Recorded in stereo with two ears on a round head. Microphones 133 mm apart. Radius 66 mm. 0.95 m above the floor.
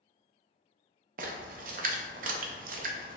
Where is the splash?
60° right (ahead or behind), 0.5 m.